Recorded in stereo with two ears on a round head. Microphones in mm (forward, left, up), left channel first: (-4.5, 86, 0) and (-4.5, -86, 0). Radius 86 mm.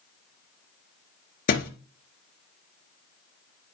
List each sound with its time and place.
1.5 s a thud: 45° left (ahead or behind), 2 m